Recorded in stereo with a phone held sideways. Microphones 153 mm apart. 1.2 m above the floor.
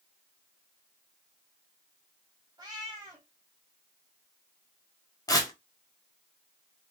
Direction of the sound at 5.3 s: 25° left (ahead or behind).